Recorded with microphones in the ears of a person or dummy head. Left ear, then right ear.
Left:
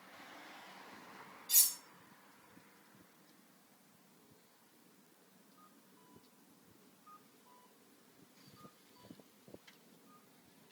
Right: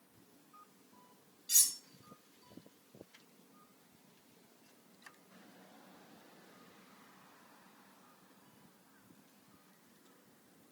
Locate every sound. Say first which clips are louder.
1.5 s cutlery clinking: right 2 dB; 30° right (ahead or behind), 1.2 m